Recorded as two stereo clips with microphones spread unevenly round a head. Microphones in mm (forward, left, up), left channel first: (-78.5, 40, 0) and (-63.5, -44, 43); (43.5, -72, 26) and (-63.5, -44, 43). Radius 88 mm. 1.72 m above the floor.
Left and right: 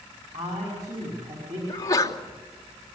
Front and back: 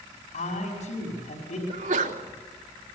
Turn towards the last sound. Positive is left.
turn(degrees=155)